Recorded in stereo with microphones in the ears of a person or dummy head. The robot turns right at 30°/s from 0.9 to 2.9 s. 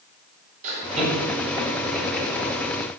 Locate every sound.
0.6 s laughter: 40° right (ahead or behind), 7.5 m; by 2.5 s 5° left (ahead or behind), 7.5 m